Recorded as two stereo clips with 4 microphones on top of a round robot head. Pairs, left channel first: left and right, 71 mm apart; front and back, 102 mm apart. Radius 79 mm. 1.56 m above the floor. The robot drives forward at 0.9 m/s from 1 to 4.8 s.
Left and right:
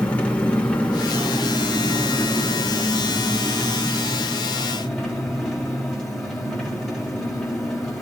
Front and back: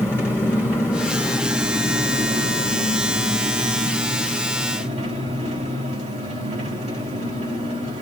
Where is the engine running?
35° left, 1.0 m; by 8.0 s 175° left, 3.5 m.